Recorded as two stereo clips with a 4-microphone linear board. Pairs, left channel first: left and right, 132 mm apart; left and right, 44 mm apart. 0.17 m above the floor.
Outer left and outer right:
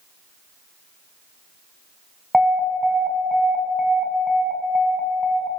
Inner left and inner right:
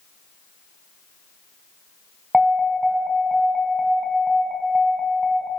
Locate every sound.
2.3 s an alarm: 5° right (ahead or behind), 2 m